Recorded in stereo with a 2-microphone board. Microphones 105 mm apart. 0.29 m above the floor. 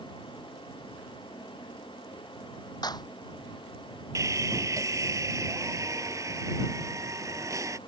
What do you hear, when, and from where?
2.8 s a clap: 40° left (ahead or behind)
4.2 s sawing: 30° right (ahead or behind)